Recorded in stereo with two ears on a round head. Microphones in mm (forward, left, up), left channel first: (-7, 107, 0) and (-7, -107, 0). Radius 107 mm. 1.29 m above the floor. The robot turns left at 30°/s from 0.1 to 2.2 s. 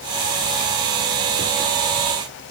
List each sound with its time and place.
Only background noise.